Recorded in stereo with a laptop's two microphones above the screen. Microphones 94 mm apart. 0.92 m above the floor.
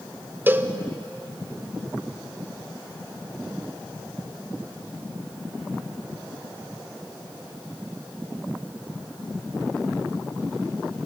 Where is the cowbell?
20° right (ahead or behind), 0.6 m.